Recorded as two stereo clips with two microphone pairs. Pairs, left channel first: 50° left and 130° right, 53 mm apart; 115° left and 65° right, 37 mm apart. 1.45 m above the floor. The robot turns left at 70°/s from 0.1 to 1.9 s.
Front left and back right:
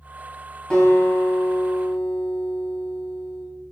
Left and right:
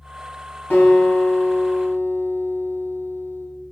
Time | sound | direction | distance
0.7 | a guitar | 135° left | 4.5 m